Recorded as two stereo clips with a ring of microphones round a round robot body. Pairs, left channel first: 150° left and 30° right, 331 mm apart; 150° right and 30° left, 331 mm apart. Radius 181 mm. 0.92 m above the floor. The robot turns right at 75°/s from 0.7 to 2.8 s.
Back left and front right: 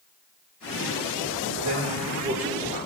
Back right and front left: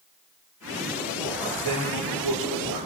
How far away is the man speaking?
About 3 m.